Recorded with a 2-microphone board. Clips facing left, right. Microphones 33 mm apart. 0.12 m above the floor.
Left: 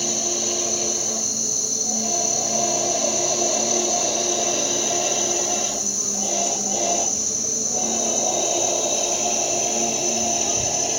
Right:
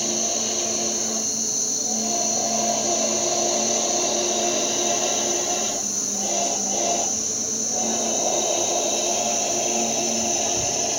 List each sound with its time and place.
0.0 s an insect: 75° right (ahead or behind), 4 m